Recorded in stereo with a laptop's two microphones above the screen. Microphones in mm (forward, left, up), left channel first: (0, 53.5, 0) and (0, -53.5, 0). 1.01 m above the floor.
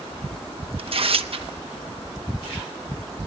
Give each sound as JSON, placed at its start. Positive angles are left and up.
{"t": 0.8, "sound": "tearing paper", "side_deg": -60, "distance_m": 0.7}